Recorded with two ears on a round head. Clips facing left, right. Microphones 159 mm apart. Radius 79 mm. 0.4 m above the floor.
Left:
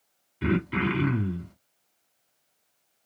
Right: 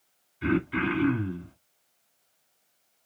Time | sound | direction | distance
0.4 | throat clearing | 75° left (ahead or behind) | 2.0 m